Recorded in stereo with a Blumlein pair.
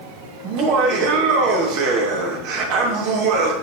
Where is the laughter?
45° right, 3 m.